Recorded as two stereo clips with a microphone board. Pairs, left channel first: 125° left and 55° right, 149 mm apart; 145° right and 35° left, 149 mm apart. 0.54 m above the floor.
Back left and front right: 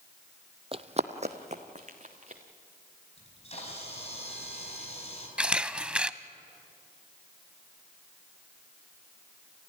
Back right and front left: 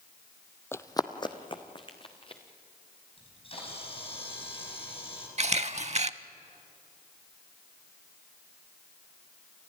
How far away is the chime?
No chime in this recording.